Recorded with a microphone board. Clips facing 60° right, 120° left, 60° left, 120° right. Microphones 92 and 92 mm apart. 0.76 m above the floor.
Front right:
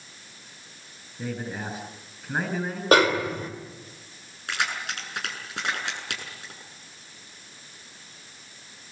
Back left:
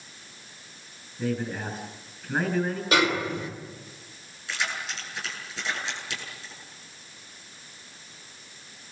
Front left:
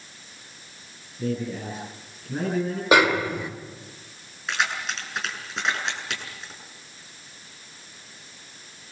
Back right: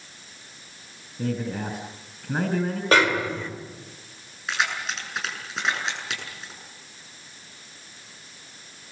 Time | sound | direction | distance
1.2 | a man speaking | 140° right | 5.5 m
2.9 | a snare drum | 20° right | 3 m
4.5 | keys jangling | 30° right | 7.5 m